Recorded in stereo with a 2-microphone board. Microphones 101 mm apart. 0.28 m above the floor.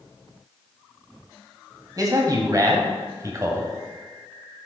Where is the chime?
I don't hear a chime.